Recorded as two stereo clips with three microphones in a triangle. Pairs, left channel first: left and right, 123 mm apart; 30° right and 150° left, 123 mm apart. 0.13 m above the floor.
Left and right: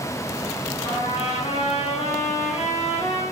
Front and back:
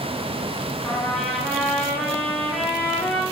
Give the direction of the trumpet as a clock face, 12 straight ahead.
10 o'clock.